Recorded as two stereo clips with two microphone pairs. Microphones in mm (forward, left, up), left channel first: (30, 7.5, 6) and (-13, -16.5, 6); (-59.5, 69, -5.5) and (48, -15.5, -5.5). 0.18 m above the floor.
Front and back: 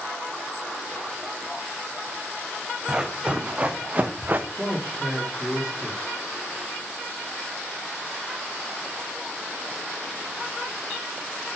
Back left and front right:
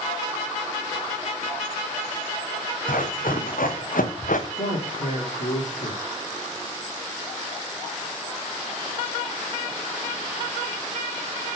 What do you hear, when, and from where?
2.9 s running footsteps: 135° left, 3 m; by 4.5 s 160° left, 1.1 m
4.6 s a man speaking: 125° left, 3 m